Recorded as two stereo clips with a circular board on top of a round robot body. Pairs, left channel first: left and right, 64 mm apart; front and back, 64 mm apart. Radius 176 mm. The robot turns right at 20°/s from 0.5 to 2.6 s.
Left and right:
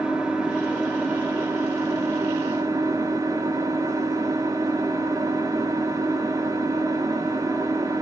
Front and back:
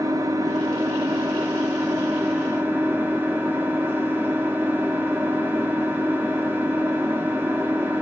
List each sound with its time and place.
0.0 s an engine running: 165° right, 1.0 m; by 8.0 s 125° right, 1.0 m